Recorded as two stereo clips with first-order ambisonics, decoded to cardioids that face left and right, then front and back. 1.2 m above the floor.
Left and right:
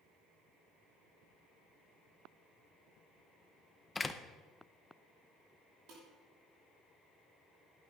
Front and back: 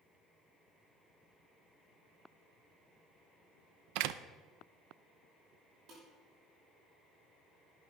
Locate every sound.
4.0 s a door slam: 170° left, 0.6 m
5.9 s dishes clattering: 130° right, 6.5 m